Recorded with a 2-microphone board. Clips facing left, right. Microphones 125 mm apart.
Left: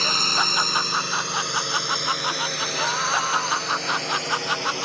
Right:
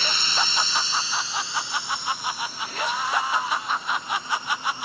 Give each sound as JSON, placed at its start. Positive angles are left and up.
{"t": 0.0, "sound": "a drone", "side_deg": 40}